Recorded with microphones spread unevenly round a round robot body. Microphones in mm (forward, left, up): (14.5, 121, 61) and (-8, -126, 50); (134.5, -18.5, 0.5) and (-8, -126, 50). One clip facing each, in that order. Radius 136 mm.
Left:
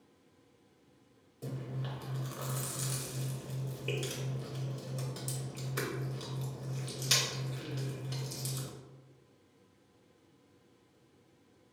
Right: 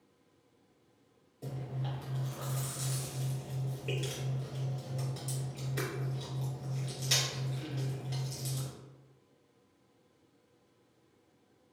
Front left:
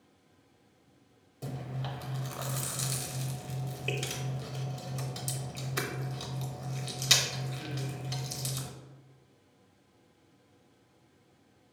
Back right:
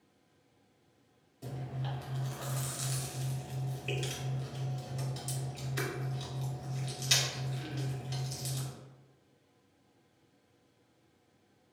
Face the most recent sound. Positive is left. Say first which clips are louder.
# even, front left 2 dB
turn(degrees=10)